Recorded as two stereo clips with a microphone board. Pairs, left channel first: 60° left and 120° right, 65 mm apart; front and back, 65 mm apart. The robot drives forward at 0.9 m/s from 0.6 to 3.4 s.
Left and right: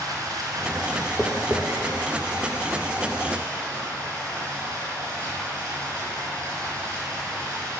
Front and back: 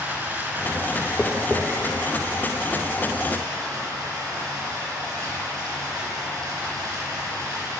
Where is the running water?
130° right, 2.5 m; by 7.8 s 155° right, 4.5 m.